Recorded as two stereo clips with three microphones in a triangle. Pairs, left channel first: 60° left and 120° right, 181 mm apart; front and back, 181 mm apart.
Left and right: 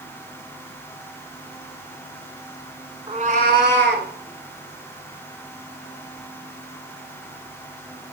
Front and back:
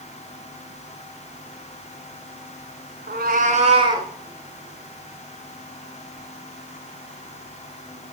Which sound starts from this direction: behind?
A cat meowing, at 3.1 s.